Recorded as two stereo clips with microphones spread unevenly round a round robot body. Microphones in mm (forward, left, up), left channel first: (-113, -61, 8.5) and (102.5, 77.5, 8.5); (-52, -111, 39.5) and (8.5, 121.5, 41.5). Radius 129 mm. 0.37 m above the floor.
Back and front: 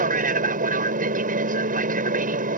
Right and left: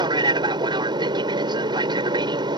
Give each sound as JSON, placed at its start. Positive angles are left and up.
{"t": 0.0, "sound": "an aircraft", "azimuth_deg": 20}